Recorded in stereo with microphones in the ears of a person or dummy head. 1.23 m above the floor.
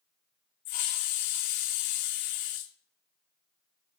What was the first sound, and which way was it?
A hiss, 40° left (ahead or behind).